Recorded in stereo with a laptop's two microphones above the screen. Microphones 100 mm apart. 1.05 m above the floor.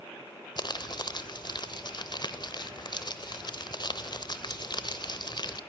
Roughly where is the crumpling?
Left.